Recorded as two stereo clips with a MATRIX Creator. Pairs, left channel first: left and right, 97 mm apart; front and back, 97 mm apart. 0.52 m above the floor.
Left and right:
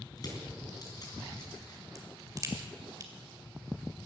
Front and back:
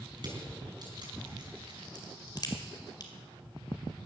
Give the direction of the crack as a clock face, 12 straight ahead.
1 o'clock.